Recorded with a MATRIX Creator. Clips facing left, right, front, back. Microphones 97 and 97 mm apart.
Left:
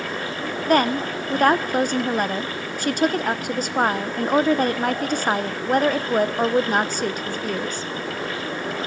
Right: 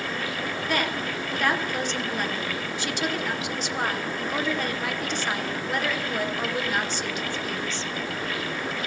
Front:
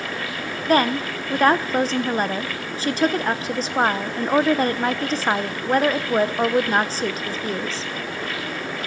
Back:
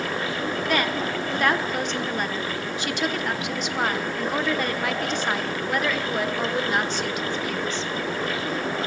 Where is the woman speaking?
50° left, 0.9 m.